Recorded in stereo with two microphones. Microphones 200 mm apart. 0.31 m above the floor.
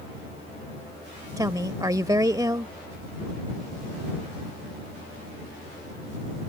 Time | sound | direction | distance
1.4 | a woman speaking | 20° right (ahead or behind) | ?